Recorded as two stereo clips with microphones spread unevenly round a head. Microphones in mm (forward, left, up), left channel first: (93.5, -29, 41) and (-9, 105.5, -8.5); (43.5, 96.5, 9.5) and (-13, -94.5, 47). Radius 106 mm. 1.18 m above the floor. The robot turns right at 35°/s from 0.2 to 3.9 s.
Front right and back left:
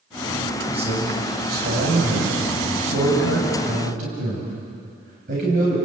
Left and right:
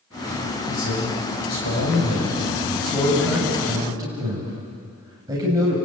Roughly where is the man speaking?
Ahead left.